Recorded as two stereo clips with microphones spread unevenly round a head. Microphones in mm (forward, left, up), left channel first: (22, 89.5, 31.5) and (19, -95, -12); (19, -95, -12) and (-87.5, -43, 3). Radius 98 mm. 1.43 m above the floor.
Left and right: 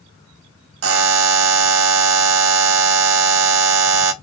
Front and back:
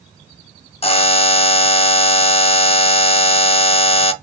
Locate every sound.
0.8 s a buzzer: 70° right, 0.5 m